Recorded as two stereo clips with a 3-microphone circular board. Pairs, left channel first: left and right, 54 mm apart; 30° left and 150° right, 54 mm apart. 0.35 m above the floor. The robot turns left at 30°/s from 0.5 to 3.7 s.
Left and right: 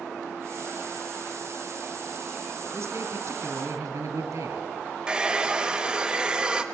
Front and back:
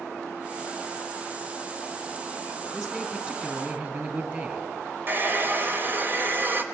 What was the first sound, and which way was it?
A man speaking, 65° right.